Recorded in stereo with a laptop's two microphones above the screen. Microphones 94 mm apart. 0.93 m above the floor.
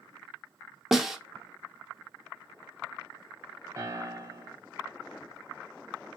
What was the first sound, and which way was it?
A snare drum, 5° right (ahead or behind).